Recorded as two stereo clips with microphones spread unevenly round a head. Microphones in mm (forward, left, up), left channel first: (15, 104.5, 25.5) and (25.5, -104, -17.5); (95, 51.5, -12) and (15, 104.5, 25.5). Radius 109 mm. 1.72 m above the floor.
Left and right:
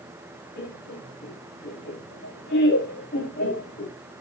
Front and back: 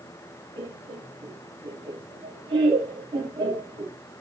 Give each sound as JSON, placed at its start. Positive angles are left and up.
{"t": 0.6, "sound": "laughter", "azimuth_deg": 130, "distance_m": 3.5}